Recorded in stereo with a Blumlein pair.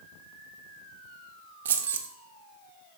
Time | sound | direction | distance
1.6 | keys jangling | 60° right | 0.6 m